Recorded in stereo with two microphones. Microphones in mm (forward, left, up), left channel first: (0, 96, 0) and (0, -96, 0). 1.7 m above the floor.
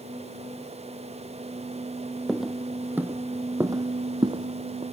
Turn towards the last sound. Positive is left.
turn(degrees=-30)  # may be behind; listen again after turning